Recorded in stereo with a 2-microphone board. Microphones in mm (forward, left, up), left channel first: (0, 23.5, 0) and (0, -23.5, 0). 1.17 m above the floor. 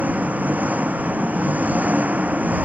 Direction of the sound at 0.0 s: 35° right (ahead or behind).